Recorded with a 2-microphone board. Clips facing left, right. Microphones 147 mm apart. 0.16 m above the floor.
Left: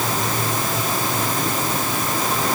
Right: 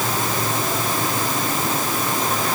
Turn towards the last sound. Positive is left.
No sound to turn to.